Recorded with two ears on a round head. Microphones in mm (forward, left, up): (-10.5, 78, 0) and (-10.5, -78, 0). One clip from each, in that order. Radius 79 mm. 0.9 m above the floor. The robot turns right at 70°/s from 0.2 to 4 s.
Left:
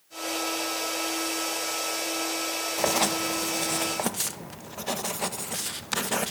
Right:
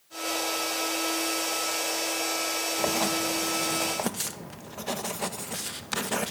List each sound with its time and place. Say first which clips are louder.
2.8 s writing: left 3 dB; 30° left (ahead or behind), 0.9 m; by 6.3 s 15° left (ahead or behind), 0.9 m